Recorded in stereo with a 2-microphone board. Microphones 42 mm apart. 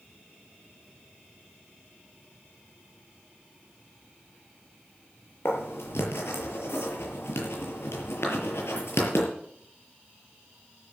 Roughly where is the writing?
Left.